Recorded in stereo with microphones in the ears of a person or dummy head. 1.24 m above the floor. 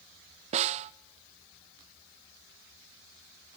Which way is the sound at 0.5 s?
35° right (ahead or behind).